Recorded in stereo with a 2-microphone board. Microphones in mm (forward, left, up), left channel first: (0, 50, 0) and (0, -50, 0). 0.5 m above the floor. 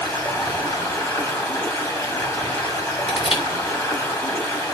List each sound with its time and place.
0.0 s running water: 30° left (ahead or behind), 2.5 m
3.1 s crushing: 60° left (ahead or behind), 4.5 m